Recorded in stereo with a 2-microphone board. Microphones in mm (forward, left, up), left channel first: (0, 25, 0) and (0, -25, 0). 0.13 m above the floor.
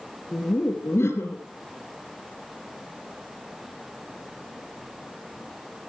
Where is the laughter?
55° left (ahead or behind), 3 m.